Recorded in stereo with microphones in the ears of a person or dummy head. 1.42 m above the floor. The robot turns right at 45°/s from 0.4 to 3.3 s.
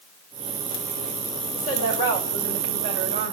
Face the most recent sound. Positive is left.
turn(degrees=-140)